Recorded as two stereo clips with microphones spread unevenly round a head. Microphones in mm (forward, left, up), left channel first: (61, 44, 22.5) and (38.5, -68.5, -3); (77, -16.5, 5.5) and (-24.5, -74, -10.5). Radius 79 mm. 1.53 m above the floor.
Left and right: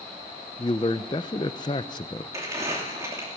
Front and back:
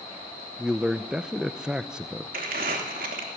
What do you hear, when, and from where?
0.6 s a man speaking: 120° left, 0.6 m
2.3 s crumpling: 175° right, 2.5 m